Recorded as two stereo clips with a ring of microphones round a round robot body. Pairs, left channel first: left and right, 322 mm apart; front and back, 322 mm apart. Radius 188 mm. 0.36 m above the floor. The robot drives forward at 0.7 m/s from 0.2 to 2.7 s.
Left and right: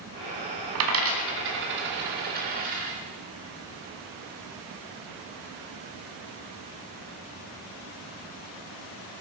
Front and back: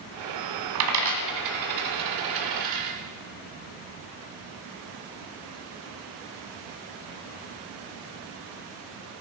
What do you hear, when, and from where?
0.8 s a dropped coin: 135° right, 1.5 m; by 3.0 s 155° right, 2.5 m